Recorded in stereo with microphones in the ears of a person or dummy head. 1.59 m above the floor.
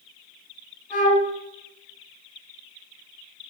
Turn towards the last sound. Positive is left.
turn(degrees=15)  # may be behind; listen again after turning